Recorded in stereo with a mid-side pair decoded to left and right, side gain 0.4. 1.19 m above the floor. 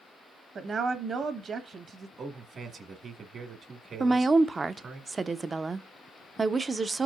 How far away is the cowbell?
No cowbell in this recording.